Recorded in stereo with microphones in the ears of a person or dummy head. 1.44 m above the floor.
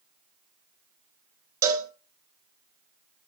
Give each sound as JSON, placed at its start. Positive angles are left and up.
{"t": 1.6, "sound": "a cowbell", "side_deg": -20, "distance_m": 1.9}